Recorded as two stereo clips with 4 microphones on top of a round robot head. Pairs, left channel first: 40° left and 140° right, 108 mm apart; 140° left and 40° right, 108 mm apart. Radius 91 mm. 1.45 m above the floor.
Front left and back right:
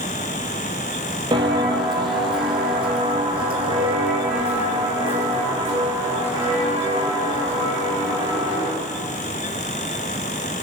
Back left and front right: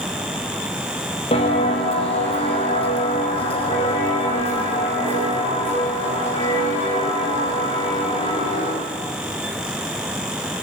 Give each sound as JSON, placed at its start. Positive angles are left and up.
{"t": 1.3, "sound": "footsteps", "azimuth_deg": 170, "distance_m": 2.5}